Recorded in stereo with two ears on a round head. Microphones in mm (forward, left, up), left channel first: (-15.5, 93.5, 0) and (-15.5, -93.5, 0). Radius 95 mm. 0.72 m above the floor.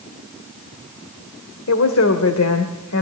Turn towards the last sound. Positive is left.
turn(degrees=75)  # may be behind; listen again after turning